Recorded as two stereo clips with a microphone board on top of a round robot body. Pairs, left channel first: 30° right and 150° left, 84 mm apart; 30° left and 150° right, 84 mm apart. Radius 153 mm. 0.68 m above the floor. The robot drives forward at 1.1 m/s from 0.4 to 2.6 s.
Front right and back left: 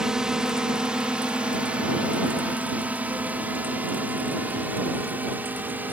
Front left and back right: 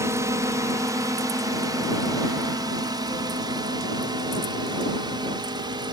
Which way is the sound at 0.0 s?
130° right.